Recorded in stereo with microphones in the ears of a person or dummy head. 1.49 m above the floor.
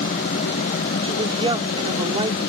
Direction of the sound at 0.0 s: 45° left (ahead or behind).